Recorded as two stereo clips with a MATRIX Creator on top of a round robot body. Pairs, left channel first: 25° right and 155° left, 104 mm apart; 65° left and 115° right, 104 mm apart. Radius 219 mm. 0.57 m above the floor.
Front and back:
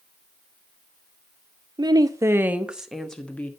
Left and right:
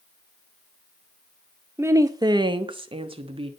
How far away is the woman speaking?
About 1.3 m.